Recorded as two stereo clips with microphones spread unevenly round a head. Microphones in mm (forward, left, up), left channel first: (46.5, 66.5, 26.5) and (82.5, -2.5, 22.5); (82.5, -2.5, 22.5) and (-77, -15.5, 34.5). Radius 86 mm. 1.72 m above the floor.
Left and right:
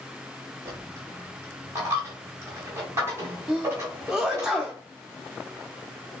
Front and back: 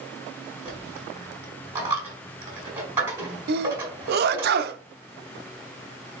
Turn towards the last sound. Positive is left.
turn(degrees=-145)